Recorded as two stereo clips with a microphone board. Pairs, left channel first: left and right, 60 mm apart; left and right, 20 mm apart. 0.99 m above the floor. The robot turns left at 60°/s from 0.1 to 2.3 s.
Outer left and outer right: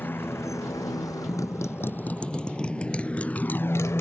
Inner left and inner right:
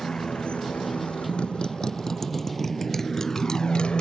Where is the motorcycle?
35° left (ahead or behind); by 4.0 s 45° left (ahead or behind).